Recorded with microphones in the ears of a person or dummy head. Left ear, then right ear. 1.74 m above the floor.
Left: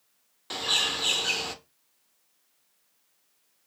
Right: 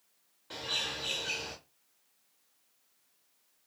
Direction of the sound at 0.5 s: 45° left (ahead or behind).